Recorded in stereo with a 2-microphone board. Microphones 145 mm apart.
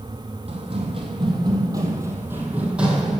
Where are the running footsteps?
45° right (ahead or behind), 2.5 m; by 3.2 s centre (ahead or behind), 2.5 m.